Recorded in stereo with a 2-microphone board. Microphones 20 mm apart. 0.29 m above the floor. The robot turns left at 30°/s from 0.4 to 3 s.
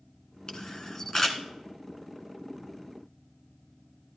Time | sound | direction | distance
0.5 | a camera shutter | 45° left (ahead or behind) | 1.1 m